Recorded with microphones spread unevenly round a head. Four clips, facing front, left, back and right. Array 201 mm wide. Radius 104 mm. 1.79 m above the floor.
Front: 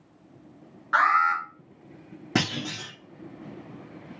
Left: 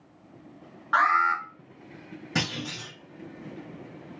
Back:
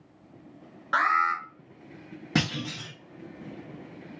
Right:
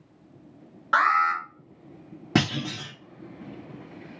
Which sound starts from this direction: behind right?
An alarm, at 0.9 s.